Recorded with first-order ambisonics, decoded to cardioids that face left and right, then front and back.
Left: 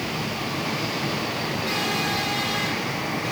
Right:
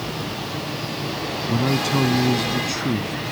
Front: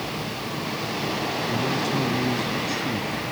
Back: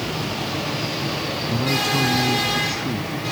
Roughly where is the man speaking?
Right.